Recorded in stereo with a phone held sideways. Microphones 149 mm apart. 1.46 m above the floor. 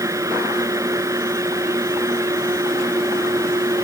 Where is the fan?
20° right (ahead or behind).